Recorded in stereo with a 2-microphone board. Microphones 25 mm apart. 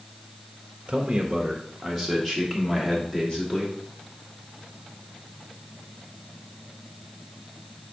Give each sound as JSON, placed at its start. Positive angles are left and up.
{"t": 0.9, "sound": "a man speaking", "side_deg": -25, "distance_m": 0.7}